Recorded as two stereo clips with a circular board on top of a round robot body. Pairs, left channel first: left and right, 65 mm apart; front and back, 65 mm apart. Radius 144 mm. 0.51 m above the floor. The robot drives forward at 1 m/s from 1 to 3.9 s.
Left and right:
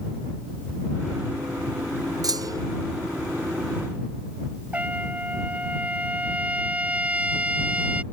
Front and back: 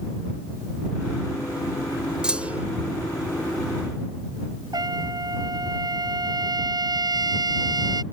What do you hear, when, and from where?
2.2 s a clunk: 105° right; by 2.7 s 115° right
4.7 s a trumpet: 160° right